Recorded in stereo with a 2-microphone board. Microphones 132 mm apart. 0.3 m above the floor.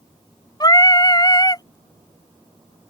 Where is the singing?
30° left (ahead or behind).